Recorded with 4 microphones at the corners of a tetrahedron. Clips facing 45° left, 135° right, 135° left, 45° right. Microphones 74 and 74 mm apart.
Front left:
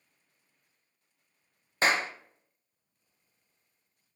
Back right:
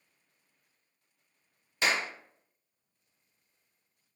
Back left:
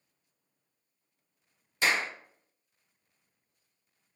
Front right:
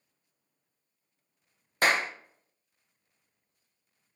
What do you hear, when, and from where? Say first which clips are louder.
1.8 s a clap: front left 3 dB, front right 3 dB; 5° right, 0.6 m